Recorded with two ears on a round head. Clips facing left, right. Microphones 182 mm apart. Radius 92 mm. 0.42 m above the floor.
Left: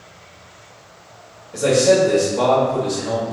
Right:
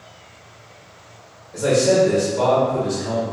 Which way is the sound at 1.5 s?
35° left (ahead or behind).